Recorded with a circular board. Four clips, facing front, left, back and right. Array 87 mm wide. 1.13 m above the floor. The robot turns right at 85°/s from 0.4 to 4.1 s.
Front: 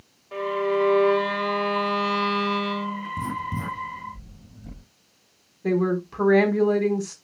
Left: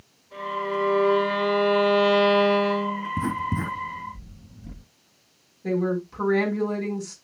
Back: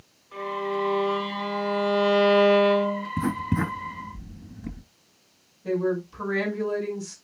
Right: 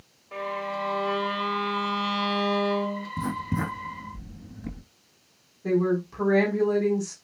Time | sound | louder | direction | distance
0.3 | a violin | left 3 dB, front 5 dB | 30° right | 4.5 m
3.2 | writing | left 1 dB, back 5 dB | 150° left | 3 m
5.6 | a woman speaking | right 1 dB, front 3 dB | 5° right | 4 m